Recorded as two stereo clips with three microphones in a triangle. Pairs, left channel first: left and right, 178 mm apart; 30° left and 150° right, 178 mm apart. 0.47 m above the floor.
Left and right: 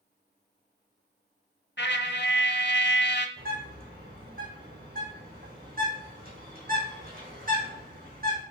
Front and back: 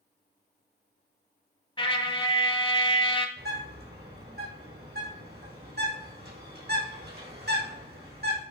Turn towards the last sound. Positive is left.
turn(degrees=-125)